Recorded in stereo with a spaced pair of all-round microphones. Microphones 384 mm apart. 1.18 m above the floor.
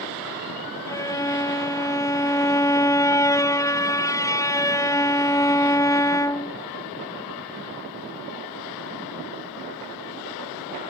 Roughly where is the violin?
Centre.